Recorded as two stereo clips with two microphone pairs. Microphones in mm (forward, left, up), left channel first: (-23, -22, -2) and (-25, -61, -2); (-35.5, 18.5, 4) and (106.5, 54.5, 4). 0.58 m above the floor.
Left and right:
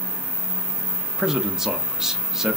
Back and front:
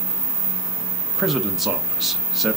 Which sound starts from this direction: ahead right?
A man speaking, at 1.2 s.